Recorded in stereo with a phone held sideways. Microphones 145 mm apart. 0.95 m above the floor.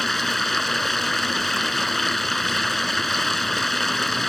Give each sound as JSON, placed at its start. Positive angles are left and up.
{"t": 0.0, "sound": "running water", "side_deg": 0}